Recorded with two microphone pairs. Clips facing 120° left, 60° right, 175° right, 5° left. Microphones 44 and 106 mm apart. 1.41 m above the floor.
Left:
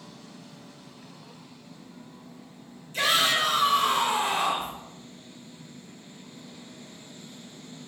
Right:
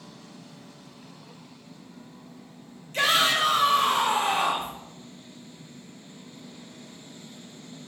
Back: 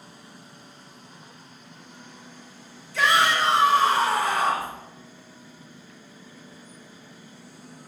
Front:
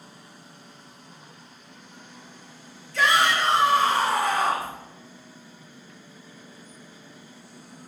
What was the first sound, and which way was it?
A shout, 85° right.